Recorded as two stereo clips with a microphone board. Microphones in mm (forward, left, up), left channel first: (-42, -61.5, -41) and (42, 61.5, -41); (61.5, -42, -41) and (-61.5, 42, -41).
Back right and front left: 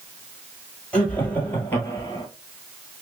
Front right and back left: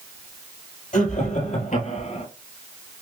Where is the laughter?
45° right, 2.5 m; by 2.3 s 55° right, 2 m.